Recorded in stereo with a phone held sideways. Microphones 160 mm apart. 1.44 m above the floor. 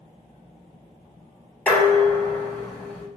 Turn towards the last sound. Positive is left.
turn(degrees=5)  # may be behind; listen again after turning